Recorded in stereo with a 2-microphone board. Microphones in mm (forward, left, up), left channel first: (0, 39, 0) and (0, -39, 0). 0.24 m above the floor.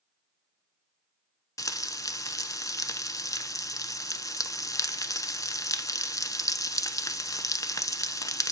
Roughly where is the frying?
Left.